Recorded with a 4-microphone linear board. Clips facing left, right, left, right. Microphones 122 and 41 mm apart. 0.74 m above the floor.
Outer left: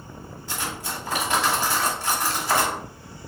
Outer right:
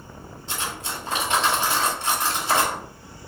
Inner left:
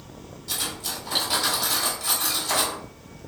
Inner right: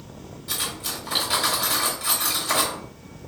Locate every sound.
0.5 s cutlery clinking: 20° right (ahead or behind), 2 m